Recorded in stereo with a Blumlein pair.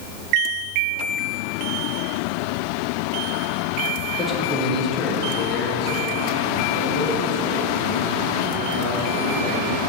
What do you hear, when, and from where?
4.2 s a man speaking: 10° left, 1.4 m; by 9.9 s 70° left, 3.5 m